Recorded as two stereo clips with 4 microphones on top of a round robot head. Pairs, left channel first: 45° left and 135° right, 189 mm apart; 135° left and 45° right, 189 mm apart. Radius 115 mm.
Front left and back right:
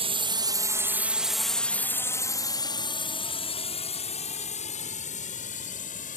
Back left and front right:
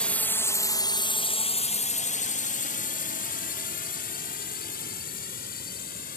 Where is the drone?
150° right; by 6.2 s 90° left.